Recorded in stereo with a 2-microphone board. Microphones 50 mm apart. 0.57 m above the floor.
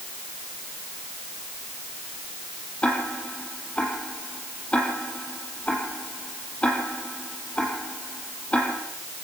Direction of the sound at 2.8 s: 25° left (ahead or behind).